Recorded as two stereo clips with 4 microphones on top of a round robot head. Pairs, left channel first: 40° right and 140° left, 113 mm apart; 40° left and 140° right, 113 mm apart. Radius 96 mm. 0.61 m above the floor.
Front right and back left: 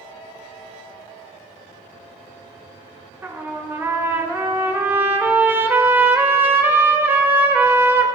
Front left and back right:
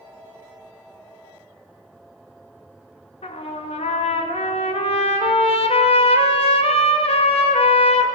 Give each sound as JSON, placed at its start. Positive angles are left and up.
{"t": 3.2, "sound": "a trumpet", "azimuth_deg": 70, "distance_m": 1.3}